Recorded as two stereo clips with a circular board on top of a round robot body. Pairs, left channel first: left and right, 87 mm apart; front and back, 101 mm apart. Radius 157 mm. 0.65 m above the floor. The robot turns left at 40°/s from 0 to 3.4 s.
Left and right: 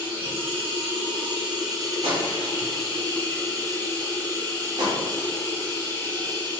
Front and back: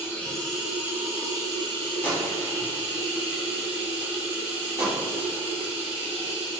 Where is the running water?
70° right, 1.1 m; by 6.6 s 155° left, 1.1 m.